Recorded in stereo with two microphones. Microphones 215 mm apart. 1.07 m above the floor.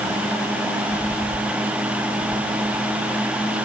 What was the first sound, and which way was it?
Only background noise.